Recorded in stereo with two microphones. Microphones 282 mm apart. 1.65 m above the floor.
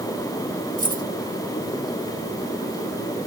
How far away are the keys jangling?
About 1.1 m.